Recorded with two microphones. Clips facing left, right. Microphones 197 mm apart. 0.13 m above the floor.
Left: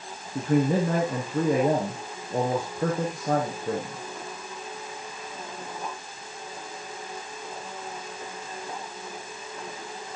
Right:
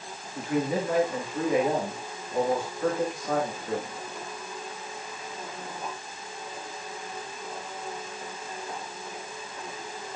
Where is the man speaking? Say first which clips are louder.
Left 5 dB; 45° left (ahead or behind), 3 m.